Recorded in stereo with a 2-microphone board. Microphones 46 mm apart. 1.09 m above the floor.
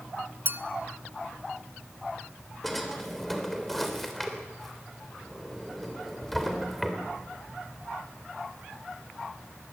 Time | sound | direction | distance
0.5 | a clink | 50° right (ahead or behind) | 0.7 m
2.6 | a drawer | 5° left (ahead or behind) | 3 m